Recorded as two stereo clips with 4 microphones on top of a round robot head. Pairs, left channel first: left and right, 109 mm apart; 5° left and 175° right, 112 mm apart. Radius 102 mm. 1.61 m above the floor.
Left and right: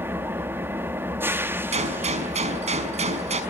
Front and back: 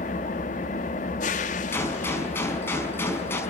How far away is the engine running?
About 2 m.